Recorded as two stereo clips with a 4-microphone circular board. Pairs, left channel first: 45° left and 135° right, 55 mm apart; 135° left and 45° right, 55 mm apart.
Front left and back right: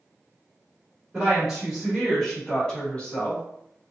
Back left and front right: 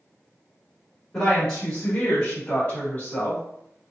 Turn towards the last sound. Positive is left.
turn(degrees=95)